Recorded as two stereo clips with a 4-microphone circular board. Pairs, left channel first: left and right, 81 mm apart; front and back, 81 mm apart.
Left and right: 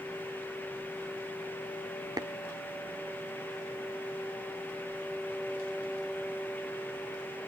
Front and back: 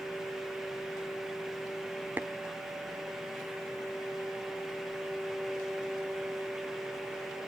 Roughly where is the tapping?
Behind right.